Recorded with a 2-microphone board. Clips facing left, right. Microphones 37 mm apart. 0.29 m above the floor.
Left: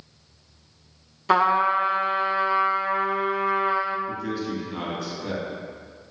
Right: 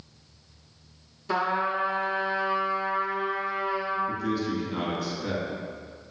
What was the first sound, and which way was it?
A trumpet, 70° left (ahead or behind).